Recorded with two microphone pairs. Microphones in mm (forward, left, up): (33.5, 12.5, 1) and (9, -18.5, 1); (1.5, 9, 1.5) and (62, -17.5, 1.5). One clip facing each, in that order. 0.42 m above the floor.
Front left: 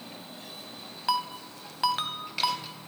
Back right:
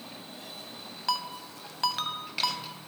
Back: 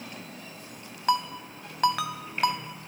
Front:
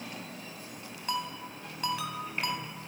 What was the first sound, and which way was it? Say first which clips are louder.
A ringtone: front left 3 dB, back 8 dB; 130° left.